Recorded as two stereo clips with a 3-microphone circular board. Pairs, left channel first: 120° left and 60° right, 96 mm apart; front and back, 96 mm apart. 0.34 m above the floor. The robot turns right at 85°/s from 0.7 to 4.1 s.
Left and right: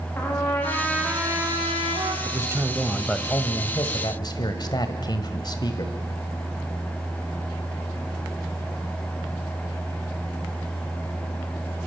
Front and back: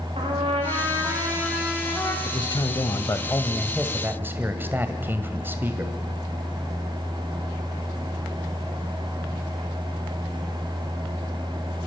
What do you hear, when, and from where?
0.2 s a trumpet: 175° right, 5.5 m; by 2.1 s 50° right, 5.5 m
2.2 s a man speaking: 35° right, 1.8 m; by 5.9 s 120° left, 1.8 m